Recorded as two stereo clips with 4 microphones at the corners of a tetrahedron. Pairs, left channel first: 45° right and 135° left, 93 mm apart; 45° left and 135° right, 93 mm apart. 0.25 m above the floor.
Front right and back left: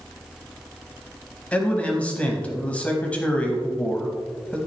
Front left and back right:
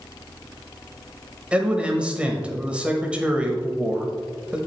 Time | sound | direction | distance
1.5 | a man speaking | 85° right | 1.0 m